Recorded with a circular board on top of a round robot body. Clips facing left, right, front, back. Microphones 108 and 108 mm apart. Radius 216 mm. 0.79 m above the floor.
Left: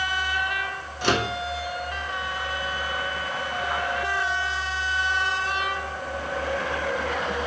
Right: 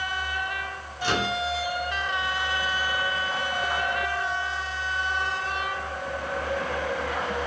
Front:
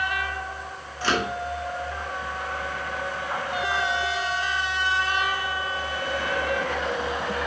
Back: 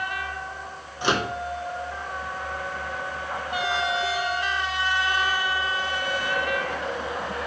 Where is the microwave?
110° left, 2.5 m.